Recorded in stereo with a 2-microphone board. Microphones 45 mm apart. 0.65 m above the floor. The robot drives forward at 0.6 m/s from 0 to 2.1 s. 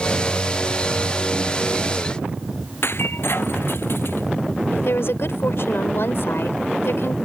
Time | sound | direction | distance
2.8 | breaking glass | 60° left (ahead or behind) | ?
4.7 | a woman speaking | 65° left (ahead or behind) | ?